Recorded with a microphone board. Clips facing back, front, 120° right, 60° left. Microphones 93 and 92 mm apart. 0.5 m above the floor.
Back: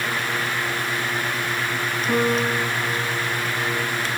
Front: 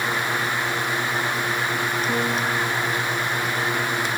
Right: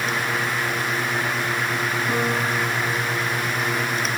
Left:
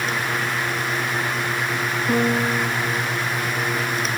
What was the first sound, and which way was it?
A piano, 95° left.